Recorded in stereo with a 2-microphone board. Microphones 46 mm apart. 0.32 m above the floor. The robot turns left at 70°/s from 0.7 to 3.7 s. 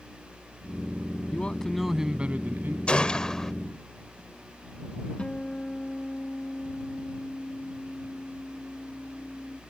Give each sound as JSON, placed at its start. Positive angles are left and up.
{"t": 1.3, "sound": "a man speaking", "azimuth_deg": 35}
{"t": 2.9, "sound": "a gunshot", "side_deg": 25}
{"t": 5.2, "sound": "a guitar", "side_deg": 25}